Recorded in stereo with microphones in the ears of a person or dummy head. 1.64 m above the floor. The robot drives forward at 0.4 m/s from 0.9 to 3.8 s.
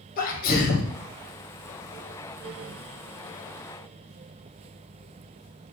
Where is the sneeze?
45° left (ahead or behind), 1.0 m.